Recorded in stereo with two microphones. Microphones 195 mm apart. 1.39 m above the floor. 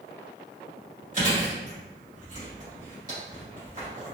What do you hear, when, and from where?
1.1 s chewing: 40° right (ahead or behind), 1.9 m